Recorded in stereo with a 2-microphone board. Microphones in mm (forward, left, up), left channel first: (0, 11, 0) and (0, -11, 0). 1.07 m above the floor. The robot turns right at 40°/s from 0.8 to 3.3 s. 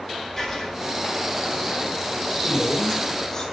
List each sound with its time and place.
0.4 s writing: 20° left (ahead or behind), 5 m
2.4 s a woman speaking: 115° left, 2.5 m; by 3.4 s 150° left, 2.5 m